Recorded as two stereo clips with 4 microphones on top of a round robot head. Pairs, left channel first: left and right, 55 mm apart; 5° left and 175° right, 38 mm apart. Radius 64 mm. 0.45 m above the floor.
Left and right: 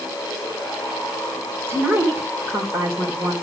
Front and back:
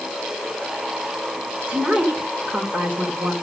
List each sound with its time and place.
1.7 s a woman speaking: 120° right, 2 m